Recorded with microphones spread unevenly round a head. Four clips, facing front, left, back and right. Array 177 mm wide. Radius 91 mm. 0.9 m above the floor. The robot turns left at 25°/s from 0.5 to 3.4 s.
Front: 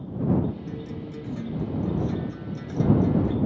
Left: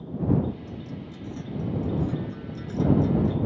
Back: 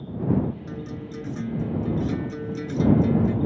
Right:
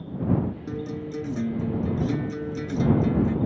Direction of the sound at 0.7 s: 85° right.